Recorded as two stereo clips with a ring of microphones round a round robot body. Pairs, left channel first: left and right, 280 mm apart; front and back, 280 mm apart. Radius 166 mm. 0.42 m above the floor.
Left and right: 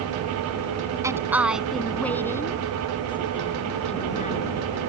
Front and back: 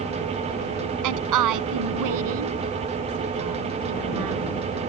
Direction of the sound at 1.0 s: 170° right.